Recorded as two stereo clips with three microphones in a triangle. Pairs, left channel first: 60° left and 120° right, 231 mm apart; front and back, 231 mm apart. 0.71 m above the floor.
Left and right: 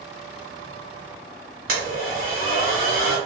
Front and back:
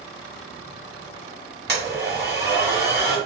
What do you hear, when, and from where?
1.7 s a blender: 140° right, 1.1 m